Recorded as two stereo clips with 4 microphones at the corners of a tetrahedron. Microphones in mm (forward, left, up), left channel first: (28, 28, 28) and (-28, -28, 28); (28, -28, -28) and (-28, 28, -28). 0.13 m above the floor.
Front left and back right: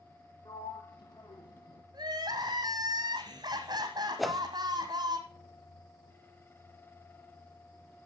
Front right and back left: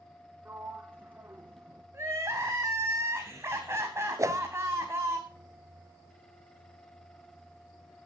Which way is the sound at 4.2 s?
135° left.